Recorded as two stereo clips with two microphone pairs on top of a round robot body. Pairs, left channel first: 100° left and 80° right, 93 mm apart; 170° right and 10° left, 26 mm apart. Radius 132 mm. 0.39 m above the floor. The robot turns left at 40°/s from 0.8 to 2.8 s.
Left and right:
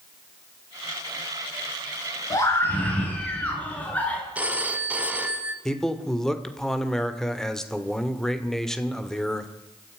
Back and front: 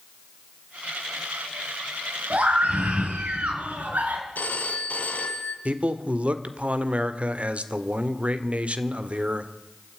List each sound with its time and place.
2.3 s a scream: 45° left, 5.5 m; by 4.2 s 25° left, 5.5 m
4.3 s a phone ringing: 155° right, 2.5 m
5.7 s a man speaking: 15° left, 1.9 m